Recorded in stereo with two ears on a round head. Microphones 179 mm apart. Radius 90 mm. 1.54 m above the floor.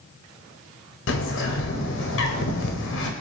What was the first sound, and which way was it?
A bird, 65° left (ahead or behind).